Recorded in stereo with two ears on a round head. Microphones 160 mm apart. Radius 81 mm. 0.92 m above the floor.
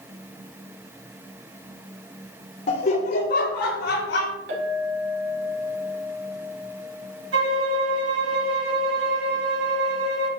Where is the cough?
No cough in this recording.